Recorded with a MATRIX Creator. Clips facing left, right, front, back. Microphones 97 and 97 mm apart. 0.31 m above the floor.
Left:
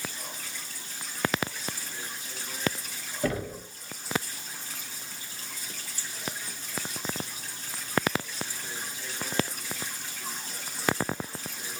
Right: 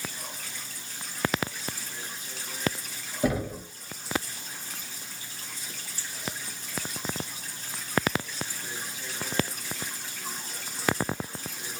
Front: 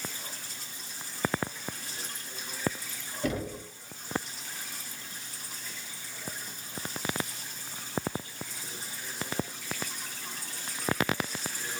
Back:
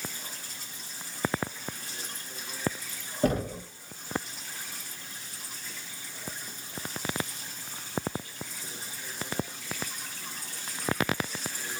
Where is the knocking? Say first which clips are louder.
Right 3 dB, back 5 dB; 160° right, 0.8 m.